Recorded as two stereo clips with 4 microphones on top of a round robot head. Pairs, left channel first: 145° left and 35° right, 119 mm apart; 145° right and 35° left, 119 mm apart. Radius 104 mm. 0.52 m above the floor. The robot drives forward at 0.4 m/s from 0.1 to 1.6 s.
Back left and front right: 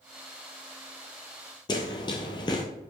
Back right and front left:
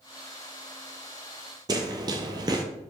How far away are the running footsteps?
About 0.8 m.